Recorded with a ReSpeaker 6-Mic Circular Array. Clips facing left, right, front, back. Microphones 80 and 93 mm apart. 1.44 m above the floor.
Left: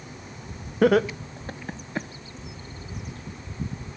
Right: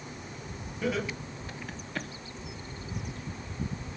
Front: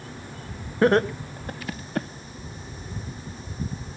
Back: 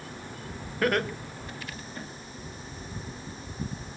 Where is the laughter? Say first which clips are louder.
Left 12 dB, front 7 dB; 65° left, 1.1 m; by 2.1 s 15° left, 1.0 m.